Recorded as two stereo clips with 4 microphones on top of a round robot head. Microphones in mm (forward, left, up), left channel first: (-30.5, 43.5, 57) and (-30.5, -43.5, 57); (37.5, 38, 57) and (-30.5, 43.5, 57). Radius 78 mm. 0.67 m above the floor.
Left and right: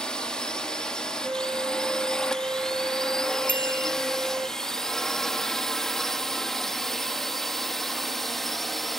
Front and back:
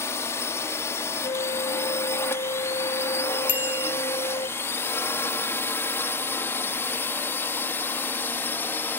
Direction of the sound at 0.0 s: 15° left.